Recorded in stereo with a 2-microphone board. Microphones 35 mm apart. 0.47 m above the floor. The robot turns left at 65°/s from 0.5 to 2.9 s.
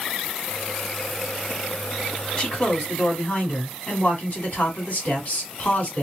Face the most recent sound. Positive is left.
turn(degrees=125)